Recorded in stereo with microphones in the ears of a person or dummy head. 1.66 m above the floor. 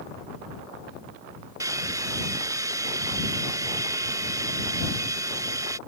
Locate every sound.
1.6 s a hair dryer: 20° right (ahead or behind)